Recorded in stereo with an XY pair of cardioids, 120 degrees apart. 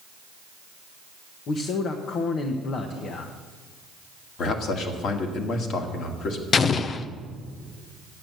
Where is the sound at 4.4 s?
60° left, 2.0 m.